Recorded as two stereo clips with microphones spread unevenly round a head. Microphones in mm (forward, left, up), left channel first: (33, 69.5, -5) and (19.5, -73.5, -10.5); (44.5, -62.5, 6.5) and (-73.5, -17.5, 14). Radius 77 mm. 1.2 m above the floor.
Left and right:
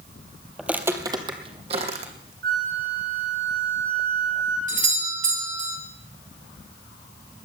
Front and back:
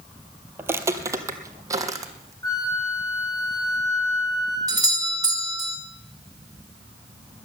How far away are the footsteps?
About 1.2 m.